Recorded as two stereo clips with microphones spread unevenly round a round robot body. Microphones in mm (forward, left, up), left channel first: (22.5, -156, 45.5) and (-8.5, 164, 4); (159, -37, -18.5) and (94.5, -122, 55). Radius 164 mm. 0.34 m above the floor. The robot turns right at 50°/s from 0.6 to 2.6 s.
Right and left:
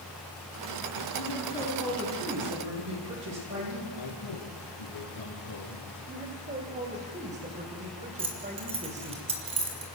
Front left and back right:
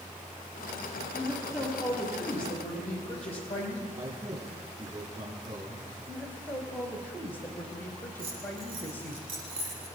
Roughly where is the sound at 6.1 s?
Ahead left.